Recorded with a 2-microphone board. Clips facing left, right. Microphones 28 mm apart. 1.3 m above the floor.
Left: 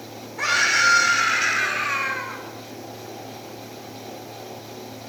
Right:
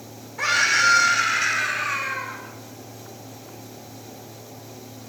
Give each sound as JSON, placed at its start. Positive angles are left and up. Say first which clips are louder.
{"t": 0.4, "sound": "a scream", "louder": "even", "side_deg": 5, "distance_m": 4.5}